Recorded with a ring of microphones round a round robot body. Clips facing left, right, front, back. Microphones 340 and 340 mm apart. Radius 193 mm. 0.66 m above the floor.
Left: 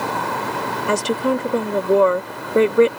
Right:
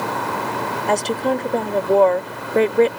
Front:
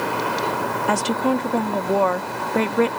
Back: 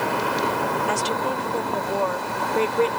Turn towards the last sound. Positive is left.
turn(degrees=15)